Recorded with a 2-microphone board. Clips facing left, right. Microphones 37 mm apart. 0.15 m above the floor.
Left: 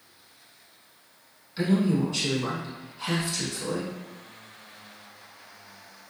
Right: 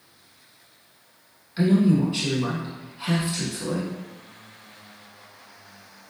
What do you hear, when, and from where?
1.6 s a man speaking: 20° right (ahead or behind), 1.1 m